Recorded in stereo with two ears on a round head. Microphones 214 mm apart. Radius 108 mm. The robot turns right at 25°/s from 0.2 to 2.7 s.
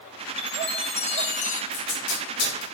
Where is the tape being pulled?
60° left (ahead or behind), 2.5 m; by 2.6 s 45° left (ahead or behind), 2.5 m.